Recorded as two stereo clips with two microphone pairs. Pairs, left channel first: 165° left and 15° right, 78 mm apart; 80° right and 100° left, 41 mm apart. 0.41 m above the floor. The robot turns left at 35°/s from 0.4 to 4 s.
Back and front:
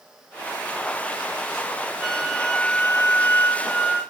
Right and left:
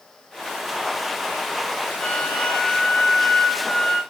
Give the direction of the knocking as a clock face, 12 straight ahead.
No knocking in this recording.